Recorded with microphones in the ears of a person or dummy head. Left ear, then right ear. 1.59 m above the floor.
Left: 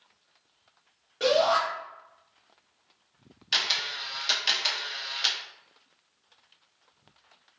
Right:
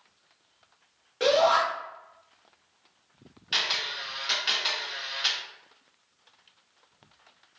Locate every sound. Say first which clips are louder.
1.2 s a shout: right 1 dB; 10° right (ahead or behind), 0.9 m
3.5 s a camera shutter: left 1 dB; 20° left (ahead or behind), 0.7 m